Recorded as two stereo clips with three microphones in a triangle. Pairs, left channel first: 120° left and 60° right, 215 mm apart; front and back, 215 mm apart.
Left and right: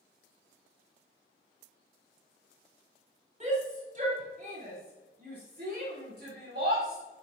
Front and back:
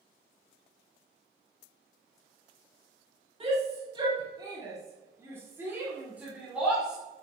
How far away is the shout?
About 3 m.